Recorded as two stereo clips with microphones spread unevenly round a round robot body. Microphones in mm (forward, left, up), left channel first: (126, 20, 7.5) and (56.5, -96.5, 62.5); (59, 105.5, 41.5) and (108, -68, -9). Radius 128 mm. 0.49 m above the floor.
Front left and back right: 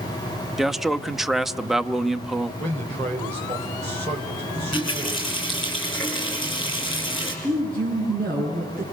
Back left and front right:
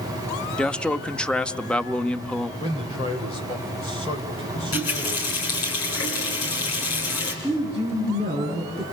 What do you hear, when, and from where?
0.6 s a man speaking: straight ahead, 1.0 m
2.6 s a man speaking: 175° left, 2.5 m
4.5 s a running tap: 145° left, 5 m
7.4 s a woman speaking: straight behind, 6.5 m